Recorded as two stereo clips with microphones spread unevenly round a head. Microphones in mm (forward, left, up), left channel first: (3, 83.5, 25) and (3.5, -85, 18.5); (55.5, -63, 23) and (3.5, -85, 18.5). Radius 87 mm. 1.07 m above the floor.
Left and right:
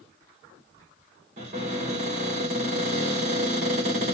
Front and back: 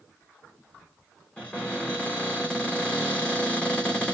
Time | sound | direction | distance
1.4 | a cupboard door | 45° right | 2.5 m